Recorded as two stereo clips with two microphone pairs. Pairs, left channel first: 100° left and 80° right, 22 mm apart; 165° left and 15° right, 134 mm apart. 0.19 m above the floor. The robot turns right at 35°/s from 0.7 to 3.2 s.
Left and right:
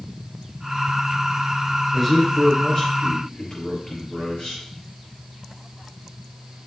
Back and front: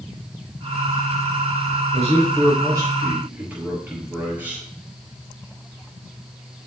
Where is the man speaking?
15° left, 4 m; by 4.6 s 60° left, 4 m.